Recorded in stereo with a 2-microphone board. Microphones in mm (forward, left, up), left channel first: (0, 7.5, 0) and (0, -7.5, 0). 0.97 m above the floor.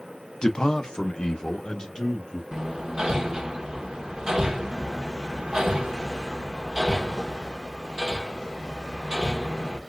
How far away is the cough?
I don't hear a cough.